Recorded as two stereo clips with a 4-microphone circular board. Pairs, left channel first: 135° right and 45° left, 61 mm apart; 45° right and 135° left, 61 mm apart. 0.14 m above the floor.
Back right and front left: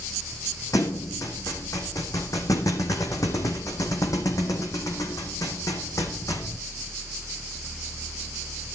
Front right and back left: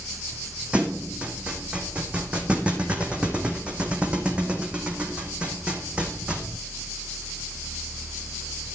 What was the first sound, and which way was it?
A thud, 155° right.